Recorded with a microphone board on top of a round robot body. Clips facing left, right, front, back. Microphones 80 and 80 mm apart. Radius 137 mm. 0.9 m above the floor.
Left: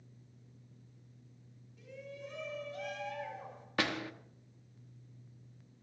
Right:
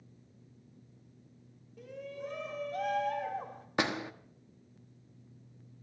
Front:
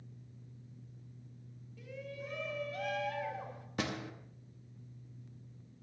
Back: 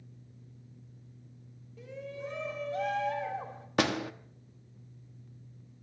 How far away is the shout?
About 3 m.